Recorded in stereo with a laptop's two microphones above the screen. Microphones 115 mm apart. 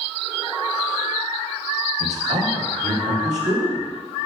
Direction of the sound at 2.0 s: 80° right.